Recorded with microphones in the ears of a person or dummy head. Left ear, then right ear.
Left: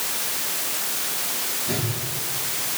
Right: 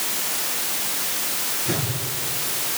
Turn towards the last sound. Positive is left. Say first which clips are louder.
# right 2 dB
turn(degrees=-60)  # may be behind; listen again after turning